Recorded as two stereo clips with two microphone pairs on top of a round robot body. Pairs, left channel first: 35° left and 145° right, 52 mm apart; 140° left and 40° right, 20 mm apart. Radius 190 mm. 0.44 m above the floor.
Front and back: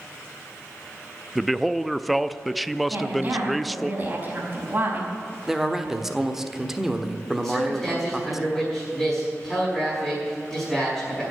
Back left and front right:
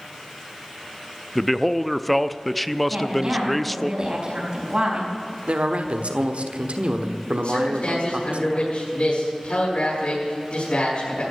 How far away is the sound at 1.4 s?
About 0.7 m.